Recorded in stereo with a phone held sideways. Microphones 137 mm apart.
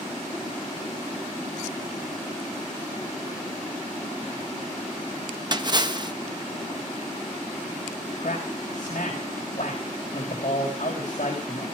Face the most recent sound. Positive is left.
turn(degrees=60)  # may be behind; listen again after turning